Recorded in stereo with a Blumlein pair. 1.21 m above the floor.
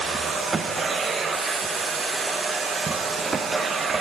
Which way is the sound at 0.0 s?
15° right.